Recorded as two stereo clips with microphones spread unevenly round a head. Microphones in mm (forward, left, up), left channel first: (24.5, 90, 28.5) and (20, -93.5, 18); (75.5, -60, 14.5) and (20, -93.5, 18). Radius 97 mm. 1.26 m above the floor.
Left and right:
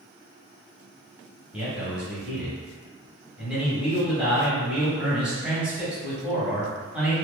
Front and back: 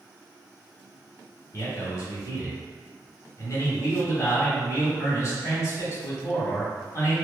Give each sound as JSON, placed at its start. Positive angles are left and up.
{"t": 1.5, "sound": "a man speaking", "azimuth_deg": -10, "distance_m": 1.3}